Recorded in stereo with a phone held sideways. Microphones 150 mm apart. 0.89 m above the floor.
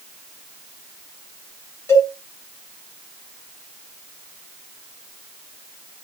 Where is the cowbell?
20° left (ahead or behind), 5.5 m.